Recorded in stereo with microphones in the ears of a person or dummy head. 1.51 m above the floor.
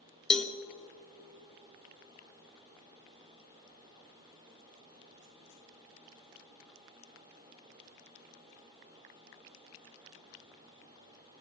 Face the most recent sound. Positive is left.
turn(degrees=0)  # may be behind; listen again after turning